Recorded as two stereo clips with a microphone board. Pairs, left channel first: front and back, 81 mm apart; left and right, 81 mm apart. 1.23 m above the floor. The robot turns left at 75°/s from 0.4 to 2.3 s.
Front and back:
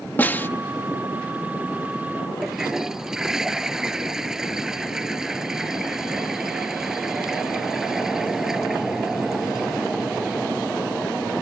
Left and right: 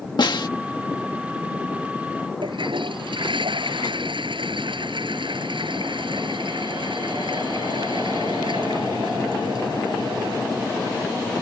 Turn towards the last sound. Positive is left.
turn(degrees=-100)